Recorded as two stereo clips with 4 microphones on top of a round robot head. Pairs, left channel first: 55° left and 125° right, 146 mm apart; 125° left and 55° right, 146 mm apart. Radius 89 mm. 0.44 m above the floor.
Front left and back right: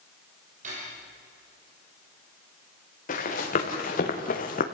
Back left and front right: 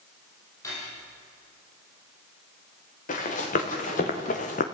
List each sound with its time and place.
0.6 s cutlery clinking: 165° right, 9 m
3.1 s running footsteps: 90° left, 4.5 m; by 4.7 s 85° left, 1.9 m